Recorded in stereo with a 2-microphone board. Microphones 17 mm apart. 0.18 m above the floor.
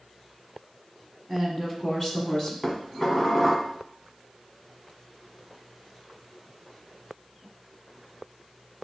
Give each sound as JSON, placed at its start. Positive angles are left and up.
{"t": 1.3, "sound": "a woman speaking", "side_deg": 15, "distance_m": 1.0}
{"t": 2.6, "sound": "dishes clattering", "side_deg": 20, "distance_m": 0.9}